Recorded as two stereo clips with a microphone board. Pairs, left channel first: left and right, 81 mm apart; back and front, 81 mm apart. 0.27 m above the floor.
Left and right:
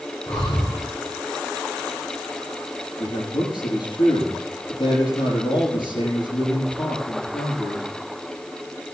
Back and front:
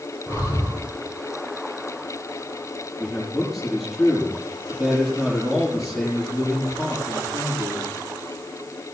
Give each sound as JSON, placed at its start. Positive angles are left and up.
{"t": 0.3, "sound": "breathing", "azimuth_deg": 45, "distance_m": 6.5}
{"t": 3.0, "sound": "a man speaking", "azimuth_deg": 85, "distance_m": 5.5}